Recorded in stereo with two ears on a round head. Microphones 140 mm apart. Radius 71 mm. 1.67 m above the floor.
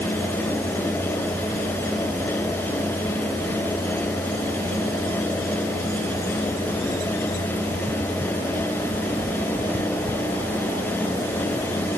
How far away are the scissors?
No scissors in this recording.